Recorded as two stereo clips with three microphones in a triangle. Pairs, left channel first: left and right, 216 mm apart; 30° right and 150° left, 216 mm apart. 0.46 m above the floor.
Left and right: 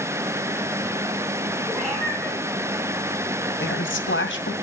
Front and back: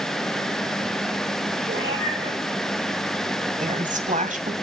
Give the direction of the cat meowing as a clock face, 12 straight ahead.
6 o'clock.